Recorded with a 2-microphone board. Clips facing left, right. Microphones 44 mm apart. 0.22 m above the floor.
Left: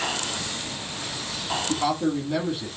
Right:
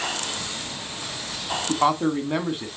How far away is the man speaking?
About 1.5 m.